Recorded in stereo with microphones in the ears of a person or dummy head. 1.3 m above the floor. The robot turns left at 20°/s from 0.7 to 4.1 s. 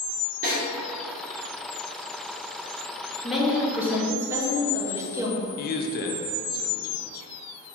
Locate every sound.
0.4 s a snare drum: 45° right (ahead or behind), 1.9 m
3.2 s a woman speaking: centre (ahead or behind), 0.8 m; by 5.4 s 15° right (ahead or behind), 0.8 m
5.6 s a man speaking: 45° left (ahead or behind), 0.5 m